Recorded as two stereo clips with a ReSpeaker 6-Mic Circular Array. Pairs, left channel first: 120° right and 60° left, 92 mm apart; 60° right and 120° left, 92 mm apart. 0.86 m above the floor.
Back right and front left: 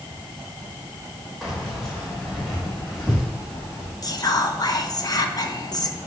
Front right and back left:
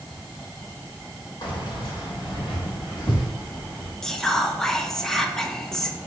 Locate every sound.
1.4 s keys jangling: 30° right, 2.5 m; by 3.9 s 40° right, 4.5 m
4.0 s whispering: 140° right, 0.8 m